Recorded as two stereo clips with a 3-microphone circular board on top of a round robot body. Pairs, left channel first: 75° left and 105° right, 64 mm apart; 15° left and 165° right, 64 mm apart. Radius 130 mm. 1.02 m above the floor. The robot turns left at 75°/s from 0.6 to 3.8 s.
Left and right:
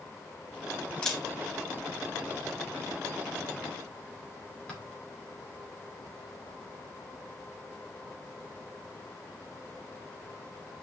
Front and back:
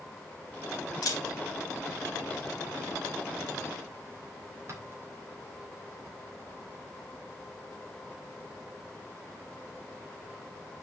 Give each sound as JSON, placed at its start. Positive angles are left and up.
{"t": 1.0, "sound": "a camera shutter", "azimuth_deg": 0, "distance_m": 3.5}